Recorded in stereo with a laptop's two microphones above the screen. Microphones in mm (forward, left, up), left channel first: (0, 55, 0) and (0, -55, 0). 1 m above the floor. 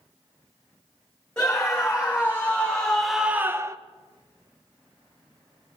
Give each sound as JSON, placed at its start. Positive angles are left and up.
{"t": 1.4, "sound": "a scream", "side_deg": 20, "distance_m": 2.5}